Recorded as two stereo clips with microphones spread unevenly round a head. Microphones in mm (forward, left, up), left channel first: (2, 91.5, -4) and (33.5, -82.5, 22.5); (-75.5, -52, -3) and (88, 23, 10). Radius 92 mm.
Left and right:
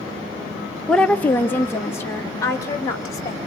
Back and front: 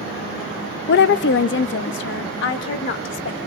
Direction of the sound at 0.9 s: 175° right.